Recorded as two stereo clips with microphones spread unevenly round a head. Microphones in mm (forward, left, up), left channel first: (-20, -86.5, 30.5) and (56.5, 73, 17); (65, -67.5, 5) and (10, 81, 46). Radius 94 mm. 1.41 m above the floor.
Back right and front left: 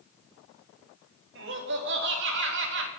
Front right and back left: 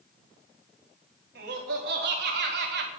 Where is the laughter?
90° left, 3.5 m.